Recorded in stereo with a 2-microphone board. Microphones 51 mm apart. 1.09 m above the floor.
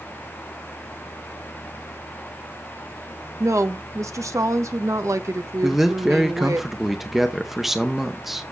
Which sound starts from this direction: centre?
A man speaking, at 5.6 s.